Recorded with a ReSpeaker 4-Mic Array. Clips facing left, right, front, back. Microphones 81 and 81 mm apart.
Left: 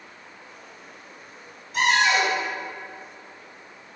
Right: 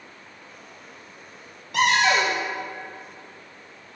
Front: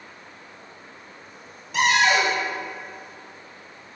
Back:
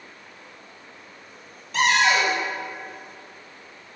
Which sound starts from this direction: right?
A cupboard door, at 1.7 s.